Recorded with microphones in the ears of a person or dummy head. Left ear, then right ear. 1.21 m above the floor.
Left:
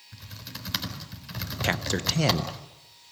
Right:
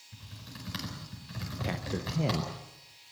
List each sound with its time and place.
0.1 s typing on a keyboard: 30° left (ahead or behind), 4.5 m
1.6 s a man speaking: 50° left (ahead or behind), 1.3 m